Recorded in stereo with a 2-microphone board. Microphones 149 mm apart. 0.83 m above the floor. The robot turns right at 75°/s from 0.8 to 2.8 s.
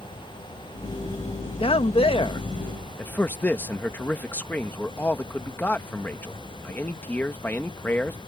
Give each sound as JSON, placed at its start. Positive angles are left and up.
{"t": 1.6, "sound": "a man speaking", "azimuth_deg": 70}